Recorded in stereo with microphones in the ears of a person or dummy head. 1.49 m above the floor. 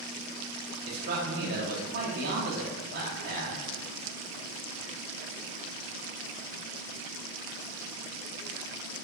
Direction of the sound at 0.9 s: 55° right (ahead or behind).